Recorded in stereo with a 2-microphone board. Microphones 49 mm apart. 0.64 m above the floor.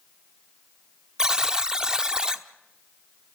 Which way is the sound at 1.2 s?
15° right (ahead or behind).